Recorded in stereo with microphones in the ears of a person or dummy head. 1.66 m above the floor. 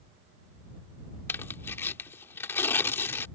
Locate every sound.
1.3 s tearing paper: 10° left (ahead or behind)